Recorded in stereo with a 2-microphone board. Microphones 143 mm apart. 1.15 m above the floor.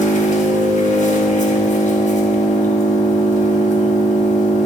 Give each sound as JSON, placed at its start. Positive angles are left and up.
{"t": 0.0, "sound": "an engine running", "side_deg": 60, "distance_m": 0.9}